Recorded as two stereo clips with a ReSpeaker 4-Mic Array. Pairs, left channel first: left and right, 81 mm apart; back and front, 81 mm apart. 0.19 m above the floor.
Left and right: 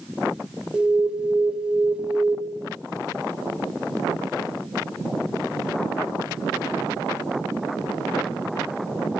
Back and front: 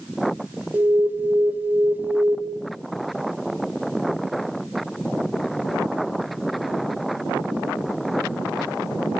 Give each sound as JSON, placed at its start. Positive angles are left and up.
{"t": 0.7, "sound": "an alarm", "azimuth_deg": -30, "distance_m": 1.3}